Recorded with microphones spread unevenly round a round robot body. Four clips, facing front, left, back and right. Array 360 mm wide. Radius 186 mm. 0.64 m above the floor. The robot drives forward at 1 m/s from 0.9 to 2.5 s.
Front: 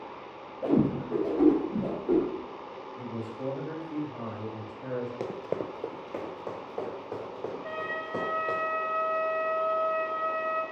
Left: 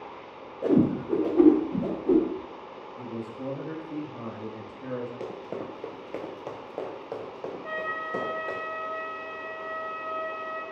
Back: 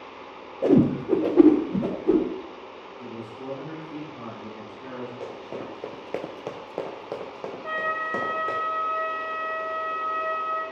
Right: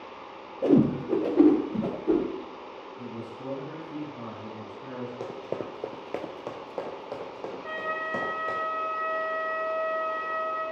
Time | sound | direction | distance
0.6 | a whoosh | 140° right | 0.6 m
3.0 | a man speaking | 60° left | 1.0 m
5.2 | running footsteps | 5° right | 0.7 m
7.6 | a flute | 170° right | 2.5 m